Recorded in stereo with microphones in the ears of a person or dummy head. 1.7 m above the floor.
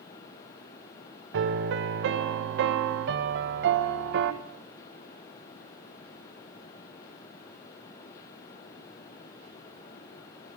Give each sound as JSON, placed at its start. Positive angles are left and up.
{"t": 1.3, "sound": "a piano", "side_deg": -65, "distance_m": 1.3}